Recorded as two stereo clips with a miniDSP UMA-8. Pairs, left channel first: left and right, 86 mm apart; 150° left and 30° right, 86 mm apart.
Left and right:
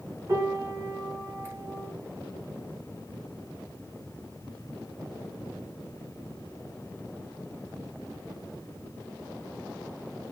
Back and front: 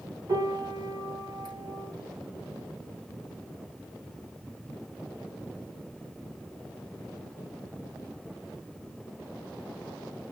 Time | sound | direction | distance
0.3 | a piano | 40° right | 1.8 m